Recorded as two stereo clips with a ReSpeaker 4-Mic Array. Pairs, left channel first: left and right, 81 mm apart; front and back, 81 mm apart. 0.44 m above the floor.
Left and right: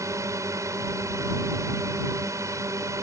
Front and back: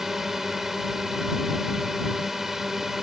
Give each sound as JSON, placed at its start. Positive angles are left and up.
{"t": 0.0, "sound": "a drone", "azimuth_deg": -100}